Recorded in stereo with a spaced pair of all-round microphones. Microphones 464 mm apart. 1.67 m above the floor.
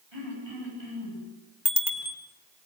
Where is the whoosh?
I don't hear a whoosh.